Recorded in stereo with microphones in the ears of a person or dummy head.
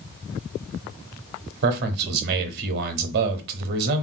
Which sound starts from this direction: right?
A man speaking, at 1.6 s.